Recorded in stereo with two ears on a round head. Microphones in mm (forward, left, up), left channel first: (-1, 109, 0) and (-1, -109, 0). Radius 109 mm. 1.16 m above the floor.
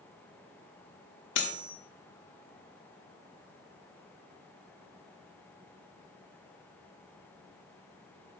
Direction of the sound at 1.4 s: 50° left (ahead or behind).